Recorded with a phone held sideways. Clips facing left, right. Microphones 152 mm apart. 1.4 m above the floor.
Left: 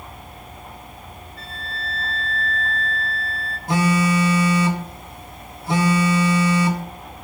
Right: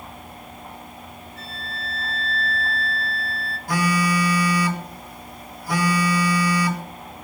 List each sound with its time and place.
1.4 s a flute: 80° right, 1.9 m
3.7 s a phone buzzing: 25° left (ahead or behind), 0.7 m